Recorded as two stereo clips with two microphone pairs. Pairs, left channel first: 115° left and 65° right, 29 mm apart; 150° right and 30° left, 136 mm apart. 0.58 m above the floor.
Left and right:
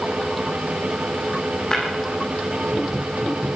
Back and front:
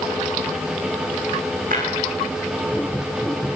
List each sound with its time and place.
1.7 s breaking glass: 45° left, 10 m